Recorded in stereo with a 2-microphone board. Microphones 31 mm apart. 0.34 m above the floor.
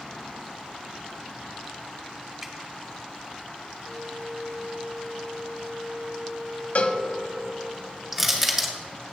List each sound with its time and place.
2.4 s dripping: 10° right (ahead or behind), 1.3 m
3.8 s a flute: 75° right (ahead or behind), 0.9 m
6.8 s a cowbell: 55° left (ahead or behind), 0.8 m
8.1 s crushing: 10° right (ahead or behind), 2 m